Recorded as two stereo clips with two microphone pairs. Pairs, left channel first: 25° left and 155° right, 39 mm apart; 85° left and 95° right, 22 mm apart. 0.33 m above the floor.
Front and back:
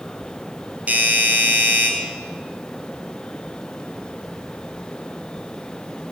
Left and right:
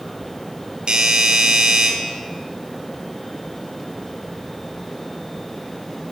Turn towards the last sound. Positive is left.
turn(degrees=-120)